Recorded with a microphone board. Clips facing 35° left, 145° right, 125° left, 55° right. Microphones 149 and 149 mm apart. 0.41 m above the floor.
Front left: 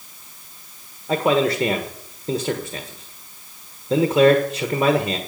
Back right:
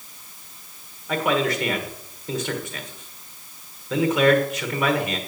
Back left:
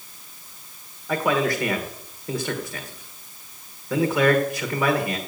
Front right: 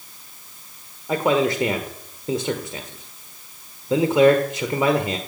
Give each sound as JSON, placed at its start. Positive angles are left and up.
{"t": 1.1, "sound": "a man speaking", "azimuth_deg": 0, "distance_m": 1.4}